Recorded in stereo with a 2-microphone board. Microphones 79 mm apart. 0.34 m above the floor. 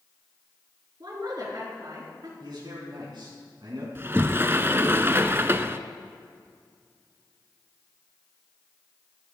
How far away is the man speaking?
About 3 m.